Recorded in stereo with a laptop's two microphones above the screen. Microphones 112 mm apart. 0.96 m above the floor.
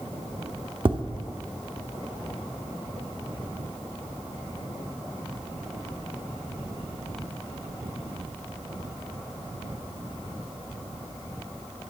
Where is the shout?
No shout in this recording.